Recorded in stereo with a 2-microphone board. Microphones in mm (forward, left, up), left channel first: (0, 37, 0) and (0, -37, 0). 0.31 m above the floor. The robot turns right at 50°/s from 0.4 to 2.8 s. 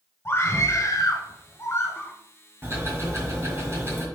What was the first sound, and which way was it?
A scream, 55° left.